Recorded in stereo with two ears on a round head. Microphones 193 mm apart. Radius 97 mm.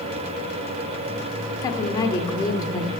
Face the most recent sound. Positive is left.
turn(degrees=20)  # may be behind; listen again after turning